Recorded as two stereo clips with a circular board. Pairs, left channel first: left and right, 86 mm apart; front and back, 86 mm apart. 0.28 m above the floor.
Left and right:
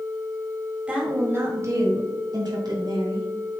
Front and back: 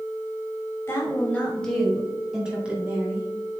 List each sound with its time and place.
0.9 s a woman speaking: 25° right, 1.7 m; by 3.3 s 110° right, 3 m